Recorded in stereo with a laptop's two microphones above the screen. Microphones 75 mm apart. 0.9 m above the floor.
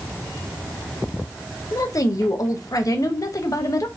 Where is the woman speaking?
50° left (ahead or behind), 0.7 m.